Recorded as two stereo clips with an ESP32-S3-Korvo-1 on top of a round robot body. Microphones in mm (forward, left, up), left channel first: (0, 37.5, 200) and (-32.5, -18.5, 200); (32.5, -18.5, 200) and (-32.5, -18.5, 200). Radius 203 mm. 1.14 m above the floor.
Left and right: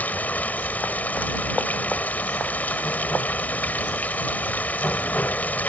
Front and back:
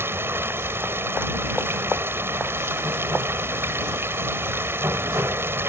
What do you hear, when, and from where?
0.0 s running water: 125° left